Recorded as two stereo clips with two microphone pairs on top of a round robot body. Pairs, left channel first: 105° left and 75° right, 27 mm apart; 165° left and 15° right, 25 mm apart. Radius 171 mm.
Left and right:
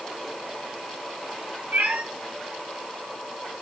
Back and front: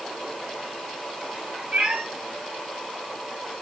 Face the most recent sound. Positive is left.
turn(degrees=-75)